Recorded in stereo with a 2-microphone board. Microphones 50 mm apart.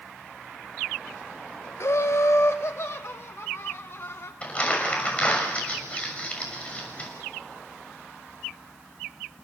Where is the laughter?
55° left (ahead or behind), 0.9 m; by 4.3 s 60° left (ahead or behind), 4.5 m.